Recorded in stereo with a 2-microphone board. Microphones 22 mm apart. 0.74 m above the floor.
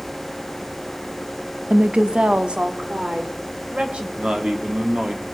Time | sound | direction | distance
1.7 | a woman speaking | 40° right (ahead or behind) | 0.6 m
4.2 | a man speaking | 40° right (ahead or behind) | 2.0 m